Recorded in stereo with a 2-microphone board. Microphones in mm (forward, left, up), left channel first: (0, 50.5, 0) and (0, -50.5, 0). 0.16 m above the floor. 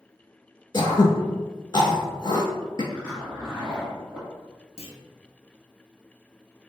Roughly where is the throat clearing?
Left.